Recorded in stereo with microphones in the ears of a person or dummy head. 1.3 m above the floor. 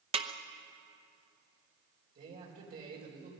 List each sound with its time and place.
0.1 s a snare drum: 25° right (ahead or behind), 0.9 m
2.1 s a man speaking: 45° right (ahead or behind), 5 m